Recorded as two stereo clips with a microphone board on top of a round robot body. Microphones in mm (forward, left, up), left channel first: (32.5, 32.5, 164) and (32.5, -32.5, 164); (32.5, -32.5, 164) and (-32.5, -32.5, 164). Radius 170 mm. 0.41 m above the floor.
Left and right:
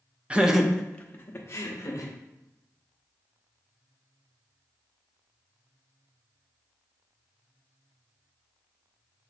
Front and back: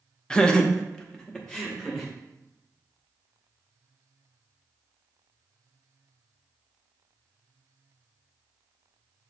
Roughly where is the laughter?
Ahead right.